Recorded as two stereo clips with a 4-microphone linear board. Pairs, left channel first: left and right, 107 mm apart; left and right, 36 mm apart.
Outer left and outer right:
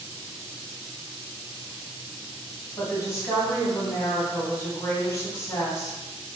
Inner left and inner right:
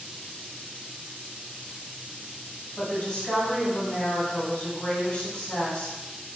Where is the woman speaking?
30° left (ahead or behind), 1.2 m.